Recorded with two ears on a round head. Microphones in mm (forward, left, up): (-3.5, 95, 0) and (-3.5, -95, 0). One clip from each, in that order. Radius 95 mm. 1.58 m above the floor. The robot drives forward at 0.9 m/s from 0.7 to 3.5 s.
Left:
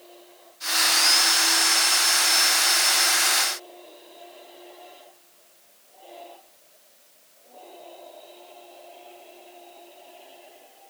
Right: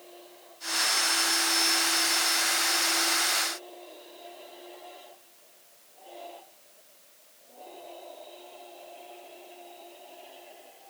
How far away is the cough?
I don't hear a cough.